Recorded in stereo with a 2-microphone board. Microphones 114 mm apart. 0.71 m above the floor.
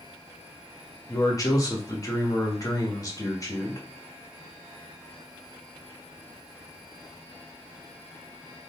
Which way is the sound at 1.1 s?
30° left (ahead or behind).